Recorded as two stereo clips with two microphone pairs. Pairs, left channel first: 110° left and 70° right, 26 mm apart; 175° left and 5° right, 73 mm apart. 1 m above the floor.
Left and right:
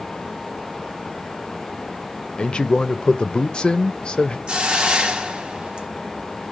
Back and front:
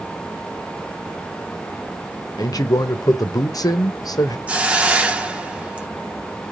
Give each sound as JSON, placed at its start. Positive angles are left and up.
{"t": 2.4, "sound": "a man speaking", "azimuth_deg": 155, "distance_m": 0.5}
{"t": 4.5, "sound": "a hiss", "azimuth_deg": -60, "distance_m": 0.6}